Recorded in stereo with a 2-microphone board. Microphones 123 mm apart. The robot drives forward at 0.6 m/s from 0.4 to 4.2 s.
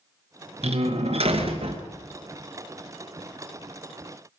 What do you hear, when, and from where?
0.6 s a door slam: 60° right (ahead or behind), 2 m; by 1.8 s 50° right (ahead or behind), 2.5 m